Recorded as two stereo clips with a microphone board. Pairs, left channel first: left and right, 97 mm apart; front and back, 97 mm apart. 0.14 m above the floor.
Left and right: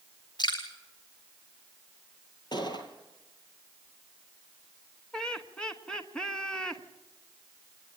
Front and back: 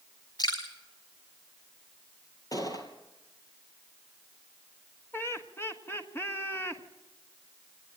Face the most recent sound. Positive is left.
turn(degrees=20)